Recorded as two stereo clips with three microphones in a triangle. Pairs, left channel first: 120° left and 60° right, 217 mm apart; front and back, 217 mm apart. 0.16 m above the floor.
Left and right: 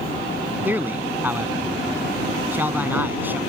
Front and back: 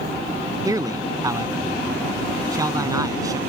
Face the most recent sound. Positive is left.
turn(degrees=-130)